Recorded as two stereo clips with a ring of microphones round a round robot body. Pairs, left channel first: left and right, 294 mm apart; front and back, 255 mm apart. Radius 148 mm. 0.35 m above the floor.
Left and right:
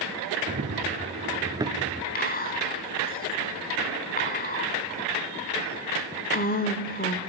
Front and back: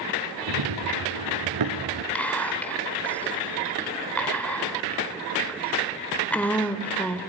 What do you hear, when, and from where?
0.5 s running footsteps: 155° right, 2.5 m; by 2.0 s 175° right, 1.6 m
2.1 s whispering: 80° left, 1.5 m